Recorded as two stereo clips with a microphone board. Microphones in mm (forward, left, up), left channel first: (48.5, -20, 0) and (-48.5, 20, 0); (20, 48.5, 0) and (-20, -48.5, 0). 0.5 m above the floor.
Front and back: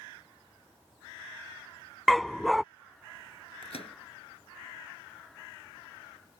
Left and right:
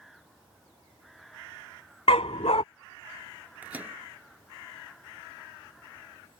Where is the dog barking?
70° left.